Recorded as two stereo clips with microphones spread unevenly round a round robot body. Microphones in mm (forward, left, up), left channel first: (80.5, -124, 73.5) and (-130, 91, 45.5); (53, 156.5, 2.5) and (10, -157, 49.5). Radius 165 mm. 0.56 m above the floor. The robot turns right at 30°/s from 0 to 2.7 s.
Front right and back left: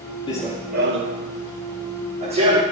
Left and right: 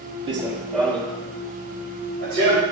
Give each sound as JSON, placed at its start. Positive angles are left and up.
{"t": 0.3, "sound": "running footsteps", "azimuth_deg": -80, "distance_m": 0.5}